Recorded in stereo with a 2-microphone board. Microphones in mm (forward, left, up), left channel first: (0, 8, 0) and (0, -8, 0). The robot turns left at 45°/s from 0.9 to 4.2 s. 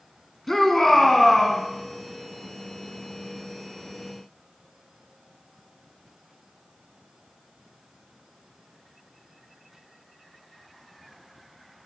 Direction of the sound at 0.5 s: 25° left (ahead or behind).